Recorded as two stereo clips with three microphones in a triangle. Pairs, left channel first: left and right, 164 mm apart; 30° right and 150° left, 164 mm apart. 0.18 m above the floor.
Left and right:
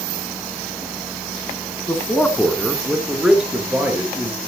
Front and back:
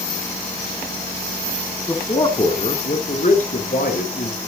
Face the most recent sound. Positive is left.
turn(degrees=-15)